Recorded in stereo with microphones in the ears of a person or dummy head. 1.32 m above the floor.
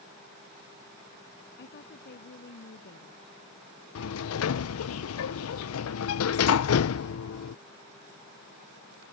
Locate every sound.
1.6 s a woman speaking: 60° left (ahead or behind)
4.0 s a sliding door: 90° left